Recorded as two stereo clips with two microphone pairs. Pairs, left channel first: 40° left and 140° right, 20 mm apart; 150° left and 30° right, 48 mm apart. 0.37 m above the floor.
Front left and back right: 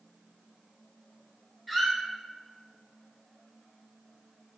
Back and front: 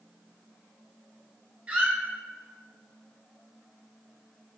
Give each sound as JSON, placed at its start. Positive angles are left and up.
{"t": 1.7, "sound": "a squeak", "azimuth_deg": -35, "distance_m": 0.9}